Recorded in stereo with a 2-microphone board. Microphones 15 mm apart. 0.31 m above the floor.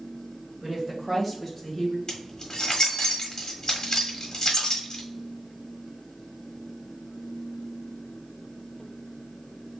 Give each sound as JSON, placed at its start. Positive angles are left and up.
{"t": 0.6, "sound": "a woman speaking", "side_deg": -25, "distance_m": 1.8}
{"t": 2.1, "sound": "keys jangling", "side_deg": 40, "distance_m": 1.4}